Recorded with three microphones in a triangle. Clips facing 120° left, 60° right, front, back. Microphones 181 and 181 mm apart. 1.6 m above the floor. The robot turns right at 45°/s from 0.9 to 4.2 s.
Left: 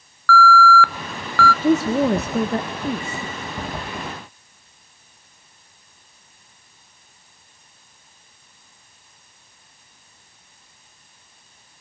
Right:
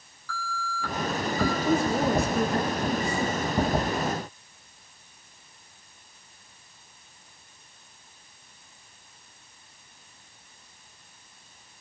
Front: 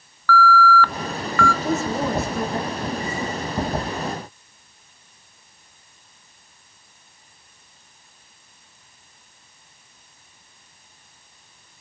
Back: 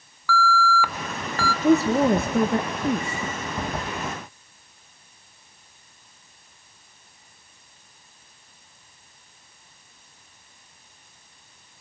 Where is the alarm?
100° left, 0.6 m; by 1.5 s 130° left, 0.6 m.